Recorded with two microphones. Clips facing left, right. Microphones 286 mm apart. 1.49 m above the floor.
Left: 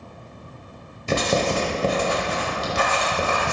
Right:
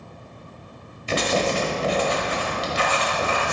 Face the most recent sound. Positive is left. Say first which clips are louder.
# left 1 dB
turn(degrees=50)  # may be behind; listen again after turning